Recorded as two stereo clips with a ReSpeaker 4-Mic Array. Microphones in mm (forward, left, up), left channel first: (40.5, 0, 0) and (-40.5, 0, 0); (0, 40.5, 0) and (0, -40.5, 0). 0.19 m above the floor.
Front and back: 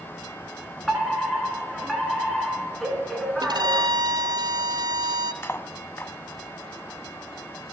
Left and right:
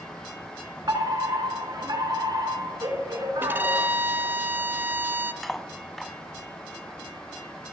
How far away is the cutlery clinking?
About 0.8 m.